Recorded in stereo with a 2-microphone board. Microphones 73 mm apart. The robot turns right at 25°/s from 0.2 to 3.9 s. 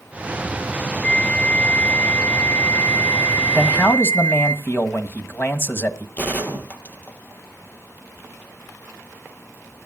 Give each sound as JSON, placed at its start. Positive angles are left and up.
{"t": 1.0, "sound": "a flute", "azimuth_deg": 10, "distance_m": 1.3}
{"t": 3.5, "sound": "a man speaking", "side_deg": 30, "distance_m": 1.6}
{"t": 6.2, "sound": "a gunshot", "side_deg": 25, "distance_m": 2.5}